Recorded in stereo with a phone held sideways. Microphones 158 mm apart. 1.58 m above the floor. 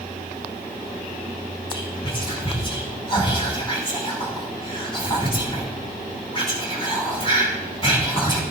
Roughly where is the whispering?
Left.